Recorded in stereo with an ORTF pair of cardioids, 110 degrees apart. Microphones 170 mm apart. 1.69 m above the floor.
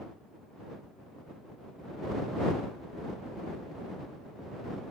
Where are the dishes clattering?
No dishes clattering in this recording.